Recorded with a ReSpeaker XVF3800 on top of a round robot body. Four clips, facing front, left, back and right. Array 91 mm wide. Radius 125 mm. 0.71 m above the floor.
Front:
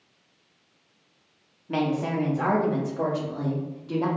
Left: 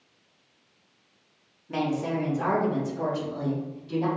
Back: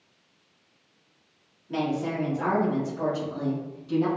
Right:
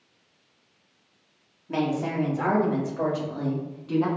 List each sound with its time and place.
1.7 s a woman speaking: 25° right, 1.3 m; by 4.1 s 55° right, 2.5 m